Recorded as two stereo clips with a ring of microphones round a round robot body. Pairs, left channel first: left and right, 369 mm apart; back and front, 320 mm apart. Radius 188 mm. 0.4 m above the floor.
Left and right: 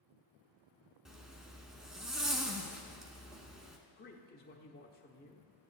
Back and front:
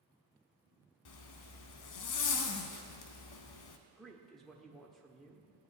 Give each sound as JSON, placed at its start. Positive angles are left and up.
{"t": 1.1, "sound": "a zipper", "azimuth_deg": 180, "distance_m": 0.7}
{"t": 3.9, "sound": "a man speaking", "azimuth_deg": 90, "distance_m": 0.9}